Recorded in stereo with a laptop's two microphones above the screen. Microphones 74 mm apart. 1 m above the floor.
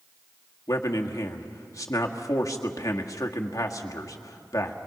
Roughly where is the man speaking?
Left.